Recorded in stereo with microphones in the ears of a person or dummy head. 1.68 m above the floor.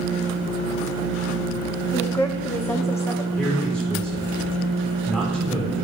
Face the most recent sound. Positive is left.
turn(degrees=5)  # may be behind; listen again after turning